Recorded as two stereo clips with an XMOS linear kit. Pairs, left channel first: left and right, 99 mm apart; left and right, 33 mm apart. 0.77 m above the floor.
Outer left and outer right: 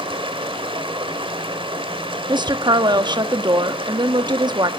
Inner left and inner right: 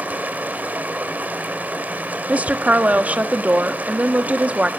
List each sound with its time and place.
0.0 s running water: 65° right (ahead or behind), 2 m
2.3 s a woman speaking: 50° right (ahead or behind), 1.1 m